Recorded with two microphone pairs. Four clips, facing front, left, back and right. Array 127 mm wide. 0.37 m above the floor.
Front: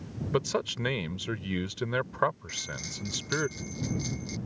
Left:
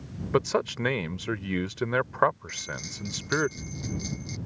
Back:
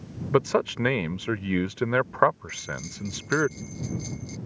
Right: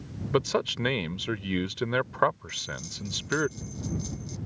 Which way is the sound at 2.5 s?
15° left.